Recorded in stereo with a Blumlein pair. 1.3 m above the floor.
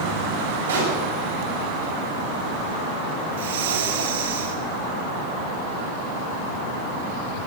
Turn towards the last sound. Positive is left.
turn(degrees=-55)